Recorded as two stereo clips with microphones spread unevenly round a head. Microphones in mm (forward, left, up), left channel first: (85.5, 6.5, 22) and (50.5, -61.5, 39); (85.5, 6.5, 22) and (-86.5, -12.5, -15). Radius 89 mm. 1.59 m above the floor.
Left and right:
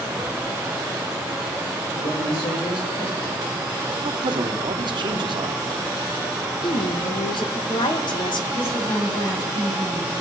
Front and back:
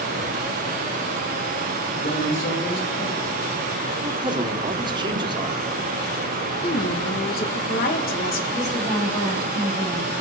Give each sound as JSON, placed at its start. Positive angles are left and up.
{"t": 1.9, "sound": "a man speaking", "azimuth_deg": 55, "distance_m": 8.0}
{"t": 4.0, "sound": "a man speaking", "azimuth_deg": -105, "distance_m": 1.1}
{"t": 6.6, "sound": "a woman speaking", "azimuth_deg": 45, "distance_m": 1.9}
{"t": 8.5, "sound": "a woman speaking", "azimuth_deg": 75, "distance_m": 7.0}